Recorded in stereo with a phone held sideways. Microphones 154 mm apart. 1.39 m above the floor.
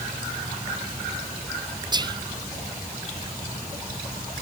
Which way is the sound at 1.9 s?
30° right (ahead or behind).